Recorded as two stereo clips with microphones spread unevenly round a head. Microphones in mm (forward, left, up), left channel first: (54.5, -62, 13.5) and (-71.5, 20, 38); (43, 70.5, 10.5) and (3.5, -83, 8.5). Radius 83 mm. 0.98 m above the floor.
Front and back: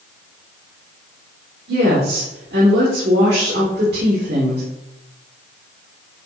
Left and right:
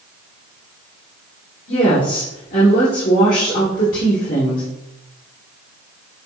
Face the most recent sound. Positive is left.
turn(degrees=120)